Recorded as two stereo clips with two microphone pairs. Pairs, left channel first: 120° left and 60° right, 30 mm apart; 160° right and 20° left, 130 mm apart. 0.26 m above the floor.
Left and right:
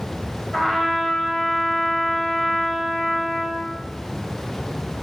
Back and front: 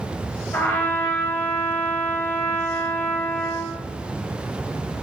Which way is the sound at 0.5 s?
175° left.